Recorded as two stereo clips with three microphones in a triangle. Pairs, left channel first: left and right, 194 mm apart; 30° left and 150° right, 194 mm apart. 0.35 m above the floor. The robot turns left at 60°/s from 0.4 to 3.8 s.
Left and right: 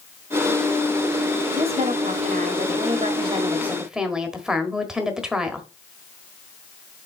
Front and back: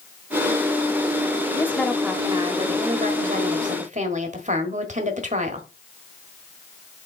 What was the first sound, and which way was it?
A woman speaking, 40° right.